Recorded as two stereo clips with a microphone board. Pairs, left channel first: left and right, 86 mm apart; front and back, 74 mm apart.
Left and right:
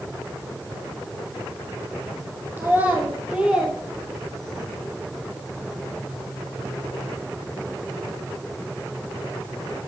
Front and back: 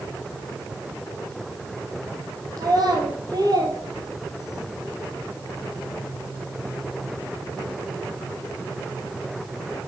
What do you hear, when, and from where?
2.6 s a child speaking: 155° right, 2.5 m; by 4.7 s 170° left, 2 m